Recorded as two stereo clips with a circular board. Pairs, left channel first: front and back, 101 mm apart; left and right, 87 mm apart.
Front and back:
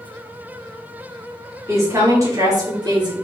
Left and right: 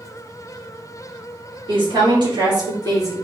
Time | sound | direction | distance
1.7 | a woman speaking | 115° right | 4 m